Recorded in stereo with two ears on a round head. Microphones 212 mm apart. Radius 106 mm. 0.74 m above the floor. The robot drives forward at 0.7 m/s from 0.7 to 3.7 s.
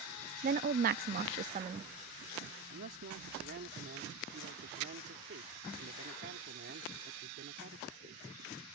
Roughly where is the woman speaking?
Right.